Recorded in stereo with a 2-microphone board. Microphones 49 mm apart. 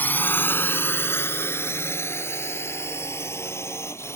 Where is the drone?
45° left (ahead or behind); by 4.2 s 70° left (ahead or behind).